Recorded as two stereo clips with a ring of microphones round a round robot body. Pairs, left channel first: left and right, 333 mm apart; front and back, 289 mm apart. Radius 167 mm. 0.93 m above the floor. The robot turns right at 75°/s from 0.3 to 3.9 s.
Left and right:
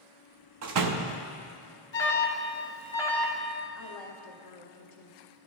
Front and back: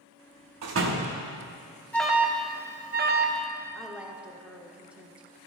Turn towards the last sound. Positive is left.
turn(degrees=95)